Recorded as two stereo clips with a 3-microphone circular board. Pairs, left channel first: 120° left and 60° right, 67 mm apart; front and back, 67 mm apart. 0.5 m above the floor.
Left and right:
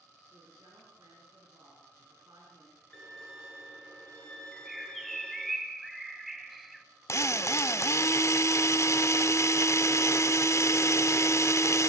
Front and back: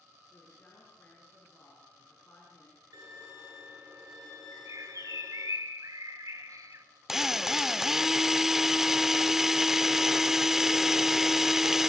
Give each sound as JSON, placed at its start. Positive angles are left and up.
{"t": 0.3, "sound": "a woman speaking", "azimuth_deg": -65, "distance_m": 7.5}
{"t": 2.9, "sound": "a violin", "azimuth_deg": -165, "distance_m": 7.5}
{"t": 4.5, "sound": "a bird", "azimuth_deg": -150, "distance_m": 1.5}
{"t": 7.1, "sound": "a drill", "azimuth_deg": 100, "distance_m": 0.9}